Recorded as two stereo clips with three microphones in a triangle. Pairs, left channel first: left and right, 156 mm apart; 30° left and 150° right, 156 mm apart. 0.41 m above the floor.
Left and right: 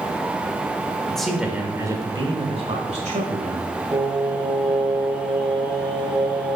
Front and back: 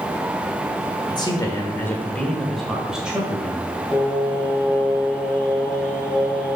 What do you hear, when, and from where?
1.1 s a man speaking: 10° left, 1.3 m; by 3.7 s 70° right, 2 m
3.9 s singing: 40° right, 2 m